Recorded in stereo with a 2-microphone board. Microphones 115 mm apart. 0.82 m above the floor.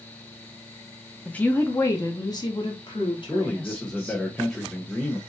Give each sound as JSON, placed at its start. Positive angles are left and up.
{"t": 1.2, "sound": "a woman speaking", "side_deg": 10, "distance_m": 0.8}
{"t": 3.3, "sound": "a man speaking", "side_deg": 5, "distance_m": 0.9}